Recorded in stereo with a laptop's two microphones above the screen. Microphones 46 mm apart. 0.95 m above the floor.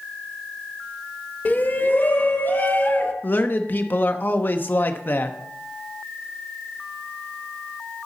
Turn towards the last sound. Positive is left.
turn(degrees=45)  # may be behind; listen again after turning